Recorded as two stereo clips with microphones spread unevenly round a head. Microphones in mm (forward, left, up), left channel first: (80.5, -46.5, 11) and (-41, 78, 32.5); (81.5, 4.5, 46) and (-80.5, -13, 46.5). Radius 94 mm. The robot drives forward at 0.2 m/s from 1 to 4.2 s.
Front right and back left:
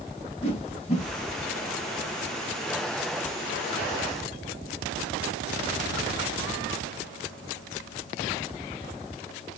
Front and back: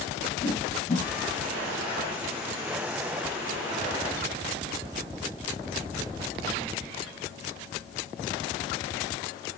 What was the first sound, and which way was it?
A whoosh, 5° right.